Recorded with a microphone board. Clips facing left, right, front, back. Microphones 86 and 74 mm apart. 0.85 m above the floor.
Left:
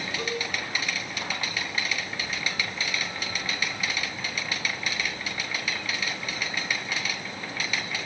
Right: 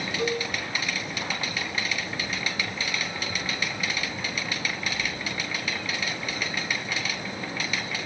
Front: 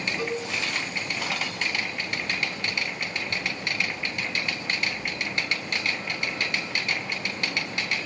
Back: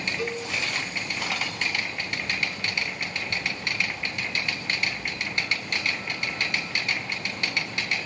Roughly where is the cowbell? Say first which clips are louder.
Right 5 dB, front 1 dB; left.